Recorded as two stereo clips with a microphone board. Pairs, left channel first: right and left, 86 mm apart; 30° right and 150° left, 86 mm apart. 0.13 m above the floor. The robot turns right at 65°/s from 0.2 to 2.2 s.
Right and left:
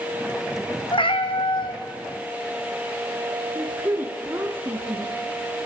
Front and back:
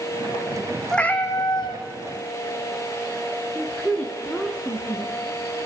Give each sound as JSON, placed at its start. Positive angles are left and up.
{"t": 0.9, "sound": "a cat meowing", "azimuth_deg": -115, "distance_m": 0.9}
{"t": 3.5, "sound": "a woman speaking", "azimuth_deg": 40, "distance_m": 1.3}